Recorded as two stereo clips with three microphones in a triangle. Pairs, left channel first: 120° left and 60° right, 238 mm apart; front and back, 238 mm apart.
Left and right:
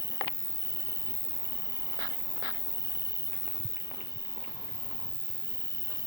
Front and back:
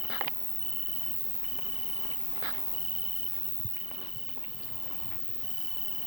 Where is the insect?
165° left.